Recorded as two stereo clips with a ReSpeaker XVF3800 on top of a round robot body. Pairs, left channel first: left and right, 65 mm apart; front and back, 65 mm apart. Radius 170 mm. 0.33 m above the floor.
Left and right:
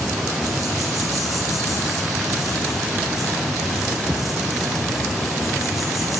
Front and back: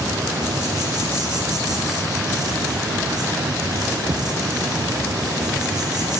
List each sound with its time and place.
0.0 s an insect: straight behind, 0.9 m